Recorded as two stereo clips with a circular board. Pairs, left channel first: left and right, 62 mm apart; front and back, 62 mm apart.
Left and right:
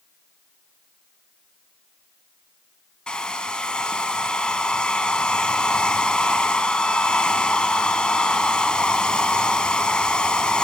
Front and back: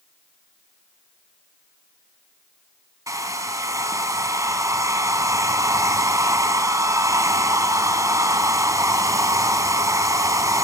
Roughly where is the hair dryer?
Behind.